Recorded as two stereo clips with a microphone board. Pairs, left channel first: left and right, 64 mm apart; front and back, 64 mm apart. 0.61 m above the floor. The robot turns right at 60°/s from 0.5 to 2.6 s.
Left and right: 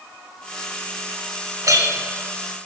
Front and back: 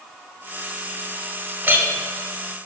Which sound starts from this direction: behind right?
A clink, at 1.6 s.